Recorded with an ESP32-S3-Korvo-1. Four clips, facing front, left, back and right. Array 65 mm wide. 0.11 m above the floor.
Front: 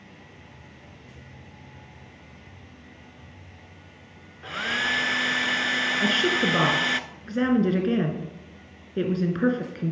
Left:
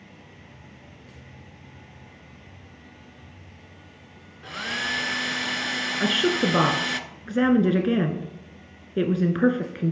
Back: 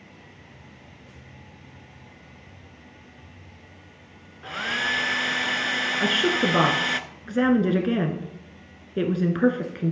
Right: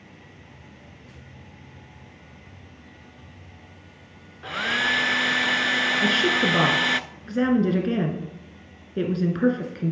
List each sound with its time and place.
4.4 s a hair dryer: 90° right, 0.5 m
6.0 s a woman speaking: 115° left, 1.2 m